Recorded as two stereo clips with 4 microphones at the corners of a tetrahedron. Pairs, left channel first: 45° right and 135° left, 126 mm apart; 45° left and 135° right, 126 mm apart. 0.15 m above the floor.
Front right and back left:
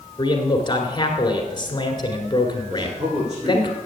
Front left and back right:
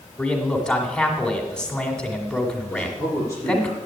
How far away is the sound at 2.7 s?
About 6.5 m.